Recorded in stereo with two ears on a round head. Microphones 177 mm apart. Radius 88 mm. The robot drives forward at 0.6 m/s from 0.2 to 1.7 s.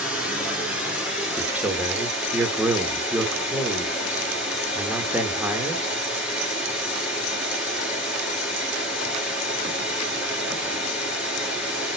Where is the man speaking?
10° right (ahead or behind), 1.2 m.